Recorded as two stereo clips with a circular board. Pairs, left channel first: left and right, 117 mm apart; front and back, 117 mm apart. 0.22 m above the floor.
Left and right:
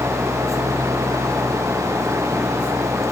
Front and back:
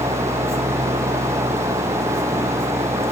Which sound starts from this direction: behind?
An engine running, at 0.0 s.